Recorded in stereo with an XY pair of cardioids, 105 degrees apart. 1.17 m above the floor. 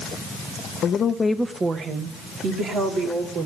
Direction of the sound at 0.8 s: 65° left.